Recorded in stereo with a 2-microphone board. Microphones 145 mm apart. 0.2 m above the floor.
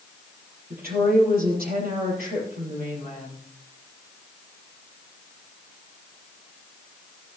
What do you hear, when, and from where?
0.7 s a woman speaking: 75° right (ahead or behind), 5.5 m